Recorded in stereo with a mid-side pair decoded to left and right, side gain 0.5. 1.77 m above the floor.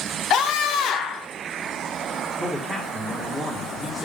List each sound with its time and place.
0.3 s a scream: 65° left, 1.3 m
2.4 s a man speaking: 5° left, 2.5 m